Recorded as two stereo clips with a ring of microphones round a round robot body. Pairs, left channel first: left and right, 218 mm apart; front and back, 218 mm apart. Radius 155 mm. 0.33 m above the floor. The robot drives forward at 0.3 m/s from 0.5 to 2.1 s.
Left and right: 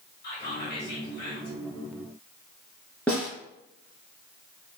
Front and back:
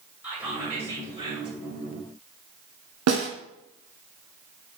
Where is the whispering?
100° left, 1.6 m; by 1.6 s 115° left, 1.6 m.